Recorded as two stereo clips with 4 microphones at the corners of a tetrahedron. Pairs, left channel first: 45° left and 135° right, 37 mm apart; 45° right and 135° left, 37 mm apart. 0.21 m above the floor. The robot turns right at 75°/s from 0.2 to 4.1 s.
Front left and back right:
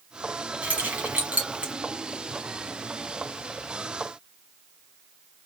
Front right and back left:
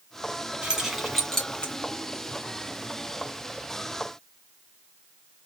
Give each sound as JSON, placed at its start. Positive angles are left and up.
{"t": 0.6, "sound": "keys jangling", "azimuth_deg": -170, "distance_m": 1.3}